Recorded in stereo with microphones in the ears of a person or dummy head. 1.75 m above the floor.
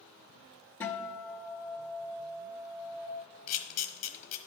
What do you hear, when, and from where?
0.8 s a guitar: 10° left (ahead or behind), 1.4 m
3.5 s a camera shutter: 35° left (ahead or behind), 0.9 m